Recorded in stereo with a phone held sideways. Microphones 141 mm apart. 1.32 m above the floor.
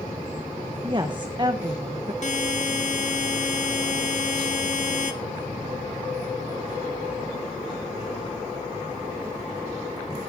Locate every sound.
0.8 s a woman speaking: 30° right (ahead or behind), 1.1 m
2.2 s a buzzer: 55° left (ahead or behind), 1.9 m